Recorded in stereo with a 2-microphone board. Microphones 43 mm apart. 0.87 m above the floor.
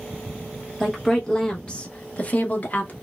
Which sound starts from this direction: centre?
A woman speaking, at 0.8 s.